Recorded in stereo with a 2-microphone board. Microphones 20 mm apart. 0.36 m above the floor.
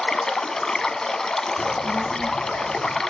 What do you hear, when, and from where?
0.0 s running water: 30° left (ahead or behind), 0.8 m
1.6 s a child speaking: 50° left (ahead or behind), 2.5 m